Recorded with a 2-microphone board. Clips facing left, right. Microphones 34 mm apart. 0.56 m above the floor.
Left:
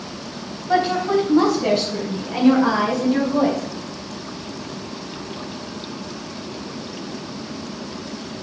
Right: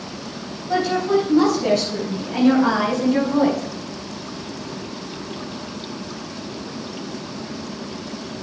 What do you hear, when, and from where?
0.7 s a woman speaking: 35° left (ahead or behind), 3.5 m; by 3.6 s 10° right (ahead or behind), 5 m